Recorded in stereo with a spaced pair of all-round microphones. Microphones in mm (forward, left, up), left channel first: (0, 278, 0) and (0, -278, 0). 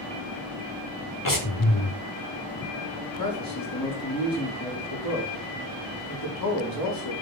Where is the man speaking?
40° left (ahead or behind), 5 m.